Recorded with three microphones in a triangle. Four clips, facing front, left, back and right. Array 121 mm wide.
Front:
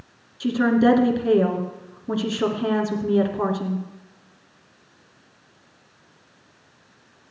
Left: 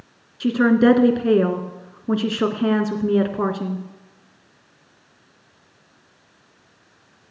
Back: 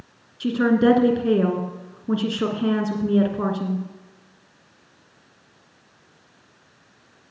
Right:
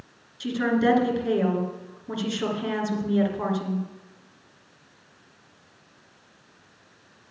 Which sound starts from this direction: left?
A woman speaking, at 0.4 s.